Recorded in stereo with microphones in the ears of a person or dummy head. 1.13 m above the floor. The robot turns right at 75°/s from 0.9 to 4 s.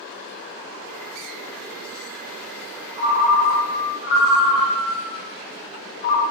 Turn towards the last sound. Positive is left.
turn(degrees=45)